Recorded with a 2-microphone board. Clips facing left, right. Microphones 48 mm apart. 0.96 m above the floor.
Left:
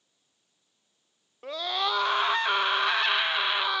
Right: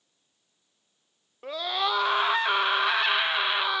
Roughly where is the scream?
Centre.